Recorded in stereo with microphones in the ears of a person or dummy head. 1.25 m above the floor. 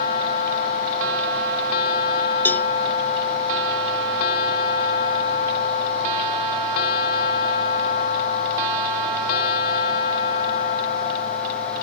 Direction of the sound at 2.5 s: 10° left (ahead or behind).